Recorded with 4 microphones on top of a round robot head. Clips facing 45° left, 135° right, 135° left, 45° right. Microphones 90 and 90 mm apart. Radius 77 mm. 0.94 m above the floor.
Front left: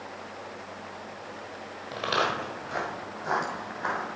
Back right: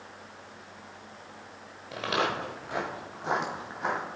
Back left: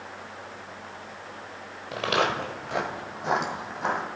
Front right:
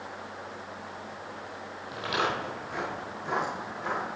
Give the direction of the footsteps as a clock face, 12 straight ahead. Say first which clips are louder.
Front left 1 dB, back left 4 dB; 8 o'clock.